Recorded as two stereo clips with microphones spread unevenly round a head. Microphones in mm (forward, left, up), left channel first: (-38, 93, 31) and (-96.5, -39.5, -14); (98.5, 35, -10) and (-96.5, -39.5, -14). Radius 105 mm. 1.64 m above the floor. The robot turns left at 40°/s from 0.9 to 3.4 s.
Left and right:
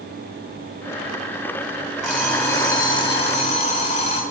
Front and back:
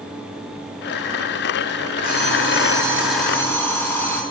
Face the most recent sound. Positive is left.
turn(degrees=100)